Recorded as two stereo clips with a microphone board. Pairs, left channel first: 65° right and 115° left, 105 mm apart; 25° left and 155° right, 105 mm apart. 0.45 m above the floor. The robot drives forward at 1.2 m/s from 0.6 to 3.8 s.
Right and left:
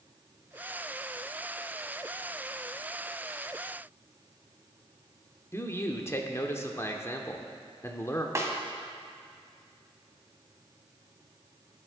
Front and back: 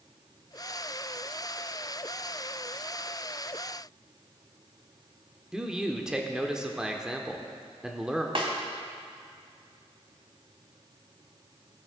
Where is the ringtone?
No ringtone in this recording.